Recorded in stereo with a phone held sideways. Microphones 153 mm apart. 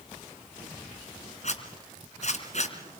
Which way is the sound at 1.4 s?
55° left (ahead or behind).